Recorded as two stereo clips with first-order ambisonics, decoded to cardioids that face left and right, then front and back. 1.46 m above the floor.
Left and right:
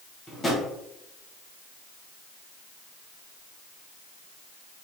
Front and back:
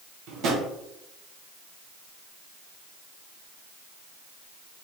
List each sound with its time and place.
0.3 s a drawer: 165° left, 0.8 m